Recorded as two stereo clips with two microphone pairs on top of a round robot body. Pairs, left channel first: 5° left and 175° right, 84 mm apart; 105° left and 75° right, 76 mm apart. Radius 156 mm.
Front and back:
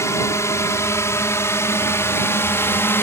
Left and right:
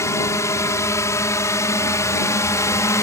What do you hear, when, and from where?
0.0 s a drone: 55° left; by 3.0 s 60° left